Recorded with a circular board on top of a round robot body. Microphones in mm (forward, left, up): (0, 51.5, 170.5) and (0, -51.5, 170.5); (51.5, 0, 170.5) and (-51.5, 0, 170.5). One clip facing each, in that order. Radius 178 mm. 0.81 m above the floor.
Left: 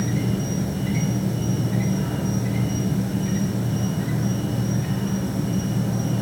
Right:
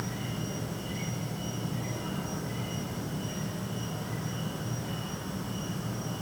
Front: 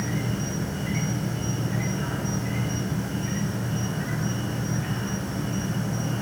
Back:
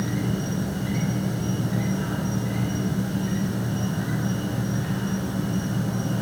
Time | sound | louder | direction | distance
0.0 | an insect | left 11 dB, back 2 dB | 105° left | 1.8 m